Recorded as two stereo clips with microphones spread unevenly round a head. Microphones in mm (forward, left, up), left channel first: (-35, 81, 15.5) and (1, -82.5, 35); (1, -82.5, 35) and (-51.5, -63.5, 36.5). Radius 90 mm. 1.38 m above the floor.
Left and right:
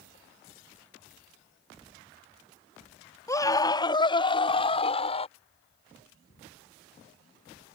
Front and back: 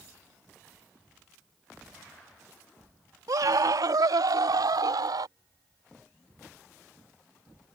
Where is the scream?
175° left; by 5.3 s 160° left.